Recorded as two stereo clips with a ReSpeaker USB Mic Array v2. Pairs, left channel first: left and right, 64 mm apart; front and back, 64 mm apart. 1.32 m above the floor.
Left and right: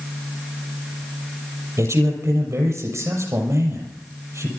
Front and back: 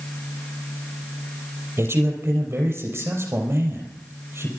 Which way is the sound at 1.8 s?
130° right.